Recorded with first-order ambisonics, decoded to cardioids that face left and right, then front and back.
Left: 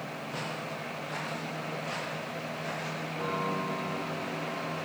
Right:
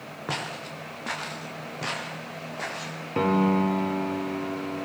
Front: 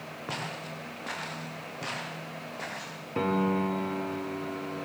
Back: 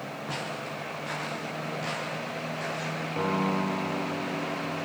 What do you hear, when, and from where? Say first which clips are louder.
0.3 s footsteps: right 6 dB, back 1 dB; 80° right, 6.5 m; by 3.0 s 75° right, 7.5 m
3.1 s a piano: right 10 dB, front 1 dB; 70° right, 2.0 m